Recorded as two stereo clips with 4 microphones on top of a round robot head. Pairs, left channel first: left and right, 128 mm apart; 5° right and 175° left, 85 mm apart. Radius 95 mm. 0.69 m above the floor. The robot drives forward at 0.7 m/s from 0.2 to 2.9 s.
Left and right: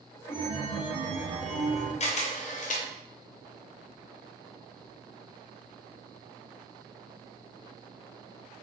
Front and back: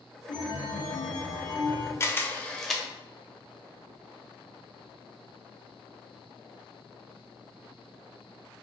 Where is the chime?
15° right, 1.9 m; by 1.9 s 45° right, 1.1 m.